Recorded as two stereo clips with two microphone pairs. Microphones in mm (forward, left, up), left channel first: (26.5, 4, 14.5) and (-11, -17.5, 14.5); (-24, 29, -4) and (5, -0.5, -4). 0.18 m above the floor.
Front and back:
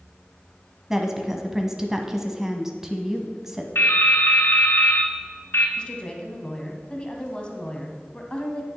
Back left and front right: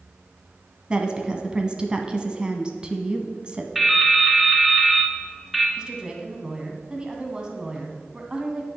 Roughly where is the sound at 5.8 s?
Ahead.